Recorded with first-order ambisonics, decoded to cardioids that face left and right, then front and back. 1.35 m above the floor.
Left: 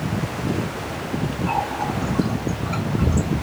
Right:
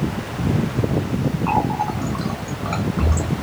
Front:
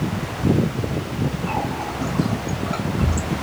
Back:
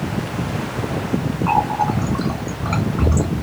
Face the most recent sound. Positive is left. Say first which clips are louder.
# right 3 dB, back 10 dB
turn(degrees=-145)